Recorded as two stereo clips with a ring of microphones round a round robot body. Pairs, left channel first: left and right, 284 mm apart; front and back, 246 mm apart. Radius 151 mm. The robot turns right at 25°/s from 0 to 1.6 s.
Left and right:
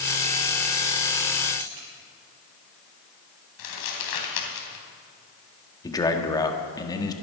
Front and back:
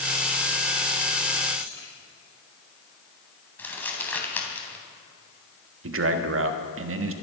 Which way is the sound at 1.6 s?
80° right.